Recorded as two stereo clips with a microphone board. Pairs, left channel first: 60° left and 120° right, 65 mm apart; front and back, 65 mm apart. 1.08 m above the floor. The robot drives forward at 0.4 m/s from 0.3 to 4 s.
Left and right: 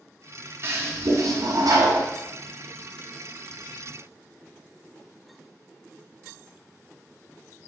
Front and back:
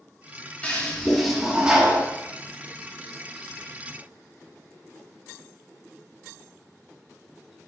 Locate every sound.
0.6 s a toilet flushing: 70° right, 0.7 m; by 2.1 s 115° right, 0.7 m